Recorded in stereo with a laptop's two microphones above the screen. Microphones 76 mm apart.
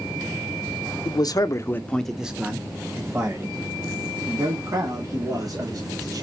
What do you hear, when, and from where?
1.1 s a man speaking: 60° left (ahead or behind), 0.7 m; by 6.2 s 50° right (ahead or behind), 3 m